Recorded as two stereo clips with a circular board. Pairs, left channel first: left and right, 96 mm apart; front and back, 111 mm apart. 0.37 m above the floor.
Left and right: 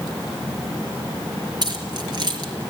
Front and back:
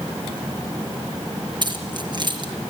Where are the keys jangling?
135° right, 4.5 m.